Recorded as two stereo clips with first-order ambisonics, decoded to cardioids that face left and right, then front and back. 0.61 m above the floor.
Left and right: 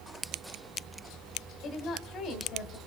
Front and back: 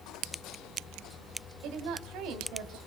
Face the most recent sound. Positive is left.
turn(degrees=145)